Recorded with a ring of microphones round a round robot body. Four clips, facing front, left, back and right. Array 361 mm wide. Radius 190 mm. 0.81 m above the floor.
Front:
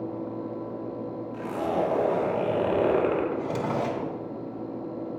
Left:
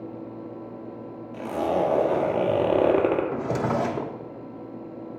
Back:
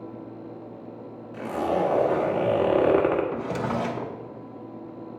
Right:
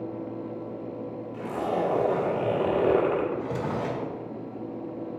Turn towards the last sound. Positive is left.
turn(degrees=100)